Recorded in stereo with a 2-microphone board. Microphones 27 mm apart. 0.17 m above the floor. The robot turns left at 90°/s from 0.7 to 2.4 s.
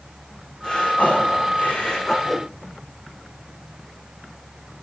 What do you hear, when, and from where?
0.6 s breathing: 145° left, 7.5 m; by 2.1 s 15° left, 7.5 m
2.2 s a whoosh: 5° left (ahead or behind), 4 m; by 2.5 s 10° right (ahead or behind), 4 m